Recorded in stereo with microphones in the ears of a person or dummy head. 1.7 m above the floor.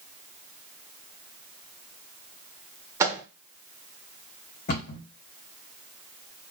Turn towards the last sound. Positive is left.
turn(degrees=50)  # may be behind; listen again after turning